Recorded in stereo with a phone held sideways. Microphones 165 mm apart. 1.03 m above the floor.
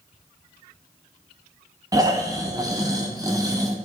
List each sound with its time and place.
1.9 s snoring: 20° right (ahead or behind), 0.9 m